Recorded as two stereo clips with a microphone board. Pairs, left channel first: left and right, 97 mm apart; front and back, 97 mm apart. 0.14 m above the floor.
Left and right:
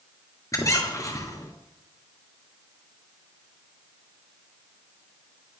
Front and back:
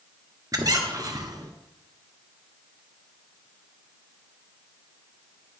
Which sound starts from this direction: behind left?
A squeak, at 0.5 s.